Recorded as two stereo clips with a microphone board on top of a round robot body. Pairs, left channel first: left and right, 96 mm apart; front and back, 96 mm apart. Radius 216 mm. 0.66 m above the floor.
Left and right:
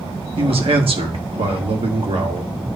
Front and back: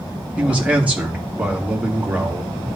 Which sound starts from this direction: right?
A man speaking, at 0.4 s.